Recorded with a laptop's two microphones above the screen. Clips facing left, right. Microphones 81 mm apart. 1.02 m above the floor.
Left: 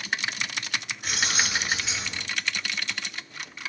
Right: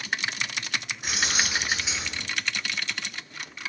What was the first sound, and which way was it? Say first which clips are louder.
Keys jangling: even; 20° right (ahead or behind).